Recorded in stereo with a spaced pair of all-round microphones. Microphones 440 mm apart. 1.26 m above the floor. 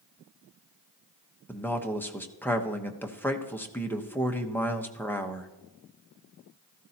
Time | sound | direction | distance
1.5 | a man speaking | 5° left (ahead or behind) | 1.0 m